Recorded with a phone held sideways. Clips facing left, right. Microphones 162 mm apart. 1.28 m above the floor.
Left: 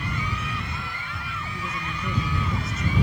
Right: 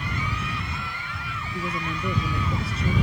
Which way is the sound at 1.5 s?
30° right (ahead or behind).